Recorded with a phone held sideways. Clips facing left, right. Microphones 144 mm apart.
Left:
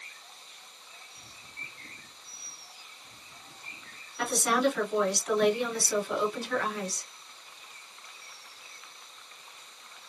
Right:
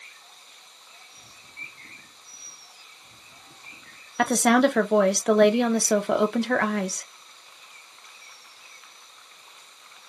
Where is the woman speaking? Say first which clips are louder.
Right 8 dB; 70° right (ahead or behind), 0.5 m.